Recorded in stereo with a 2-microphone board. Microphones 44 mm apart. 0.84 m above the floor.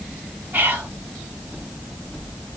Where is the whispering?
50° right (ahead or behind), 0.8 m.